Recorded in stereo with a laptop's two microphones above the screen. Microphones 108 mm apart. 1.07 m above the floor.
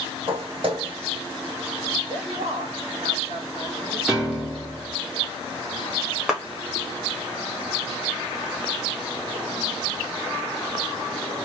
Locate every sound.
0.3 s footsteps: 55° right (ahead or behind), 1.7 m
2.1 s a man speaking: 70° right (ahead or behind), 1.6 m
4.1 s a piano: 5° right (ahead or behind), 0.6 m
6.3 s a clap: 5° right (ahead or behind), 0.8 m